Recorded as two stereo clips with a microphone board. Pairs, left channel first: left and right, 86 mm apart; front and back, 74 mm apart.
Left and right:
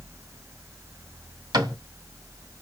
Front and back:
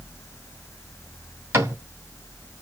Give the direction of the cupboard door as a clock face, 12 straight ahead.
4 o'clock.